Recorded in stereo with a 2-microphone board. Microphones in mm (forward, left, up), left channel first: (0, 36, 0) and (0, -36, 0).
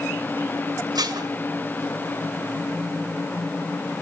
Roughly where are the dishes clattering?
Right.